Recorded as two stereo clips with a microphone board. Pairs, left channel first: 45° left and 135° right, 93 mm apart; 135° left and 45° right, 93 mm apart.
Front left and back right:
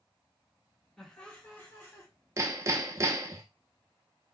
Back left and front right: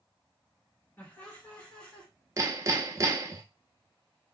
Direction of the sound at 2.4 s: 90° right.